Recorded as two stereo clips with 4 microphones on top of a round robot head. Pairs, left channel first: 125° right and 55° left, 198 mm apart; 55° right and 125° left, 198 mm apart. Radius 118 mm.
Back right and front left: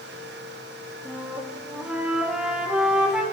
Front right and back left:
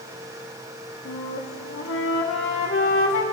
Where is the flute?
30° right, 1.4 m.